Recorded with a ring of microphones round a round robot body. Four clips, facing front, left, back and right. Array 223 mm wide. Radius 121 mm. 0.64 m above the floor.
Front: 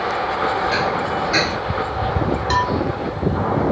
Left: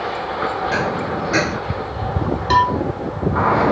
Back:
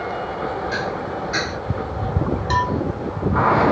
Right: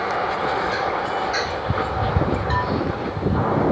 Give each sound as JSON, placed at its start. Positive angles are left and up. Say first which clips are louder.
{"t": 0.7, "sound": "dishes clattering", "louder": "left 2 dB, front 5 dB", "azimuth_deg": 75}
{"t": 2.5, "sound": "a cowbell", "louder": "left 7 dB, front 1 dB", "azimuth_deg": 80}